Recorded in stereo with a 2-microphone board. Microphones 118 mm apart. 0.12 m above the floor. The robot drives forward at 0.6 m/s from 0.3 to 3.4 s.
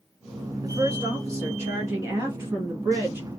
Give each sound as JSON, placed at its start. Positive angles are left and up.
{"t": 0.6, "sound": "a woman speaking", "side_deg": -30, "distance_m": 1.9}